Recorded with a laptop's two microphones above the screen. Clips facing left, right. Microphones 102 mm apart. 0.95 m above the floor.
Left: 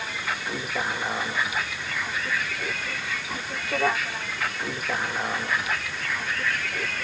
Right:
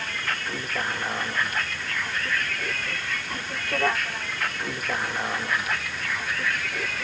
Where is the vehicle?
5° left (ahead or behind); by 7.0 s centre (ahead or behind).